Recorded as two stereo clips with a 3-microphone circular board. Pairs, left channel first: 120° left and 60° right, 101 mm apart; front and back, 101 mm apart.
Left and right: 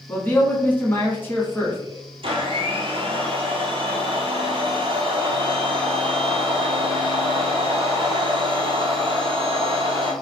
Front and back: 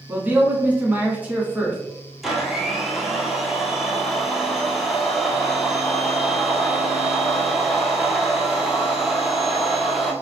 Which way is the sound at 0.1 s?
140° left.